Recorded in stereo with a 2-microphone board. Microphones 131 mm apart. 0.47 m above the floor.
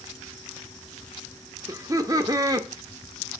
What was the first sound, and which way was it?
Laughter, 25° right (ahead or behind).